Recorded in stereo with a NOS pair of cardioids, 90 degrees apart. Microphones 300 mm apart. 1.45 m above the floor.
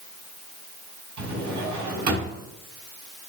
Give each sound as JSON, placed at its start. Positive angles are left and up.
{"t": 1.2, "sound": "a drawer", "azimuth_deg": -70, "distance_m": 6.0}